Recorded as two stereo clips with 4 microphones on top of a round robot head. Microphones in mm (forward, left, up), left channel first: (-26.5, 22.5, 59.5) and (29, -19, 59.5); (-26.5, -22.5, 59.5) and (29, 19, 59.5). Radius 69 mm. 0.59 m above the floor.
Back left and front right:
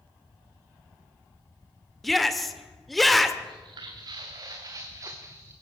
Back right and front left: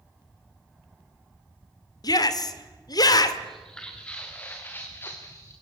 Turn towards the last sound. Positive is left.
turn(degrees=-90)